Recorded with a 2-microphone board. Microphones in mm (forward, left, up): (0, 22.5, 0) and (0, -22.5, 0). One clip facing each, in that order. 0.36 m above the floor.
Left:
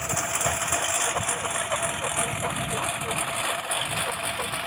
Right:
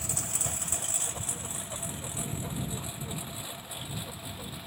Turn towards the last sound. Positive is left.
turn(degrees=75)  # may be behind; listen again after turning